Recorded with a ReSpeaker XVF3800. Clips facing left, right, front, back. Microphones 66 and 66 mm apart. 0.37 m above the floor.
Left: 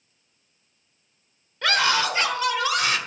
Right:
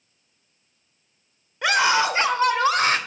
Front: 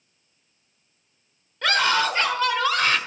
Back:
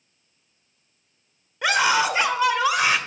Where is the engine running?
I don't hear an engine running.